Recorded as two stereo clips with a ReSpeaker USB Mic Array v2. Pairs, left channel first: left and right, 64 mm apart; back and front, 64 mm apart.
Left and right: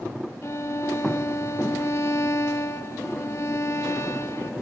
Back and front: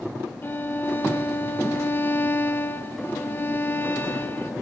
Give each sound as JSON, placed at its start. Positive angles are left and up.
{"t": 0.4, "sound": "a violin", "azimuth_deg": 130, "distance_m": 0.7}